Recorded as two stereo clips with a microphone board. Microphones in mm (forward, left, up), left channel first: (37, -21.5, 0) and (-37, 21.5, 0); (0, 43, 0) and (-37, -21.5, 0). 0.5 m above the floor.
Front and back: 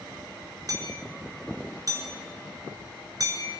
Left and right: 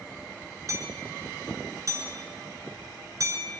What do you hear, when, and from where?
0.7 s hammering: 160° right, 7 m